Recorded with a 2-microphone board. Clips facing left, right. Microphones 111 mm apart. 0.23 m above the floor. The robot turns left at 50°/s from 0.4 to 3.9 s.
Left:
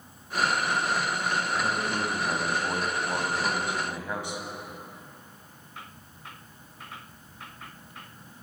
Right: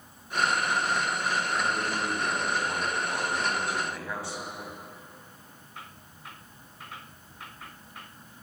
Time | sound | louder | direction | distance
1.6 | a man speaking | left 1 dB | 155° left | 1.1 m